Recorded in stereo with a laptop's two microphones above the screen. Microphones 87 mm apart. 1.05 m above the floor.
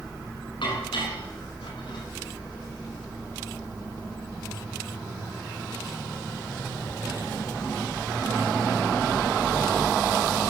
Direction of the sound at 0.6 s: 75° left (ahead or behind).